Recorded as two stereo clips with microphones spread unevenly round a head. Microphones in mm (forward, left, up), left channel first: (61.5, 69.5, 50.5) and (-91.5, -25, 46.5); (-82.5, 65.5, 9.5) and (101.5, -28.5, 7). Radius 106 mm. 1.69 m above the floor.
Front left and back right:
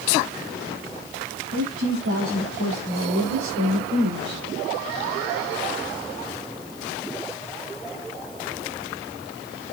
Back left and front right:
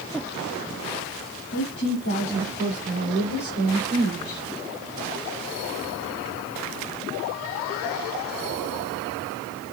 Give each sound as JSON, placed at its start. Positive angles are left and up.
{"t": 1.5, "sound": "a woman speaking", "azimuth_deg": -165, "distance_m": 4.0}